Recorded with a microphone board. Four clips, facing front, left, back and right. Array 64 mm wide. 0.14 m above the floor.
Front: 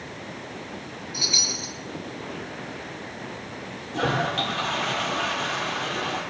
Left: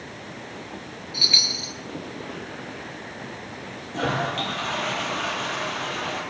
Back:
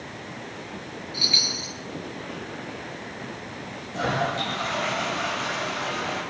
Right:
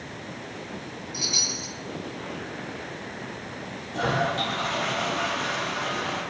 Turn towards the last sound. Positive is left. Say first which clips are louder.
# even, front 1 dB
turn(degrees=45)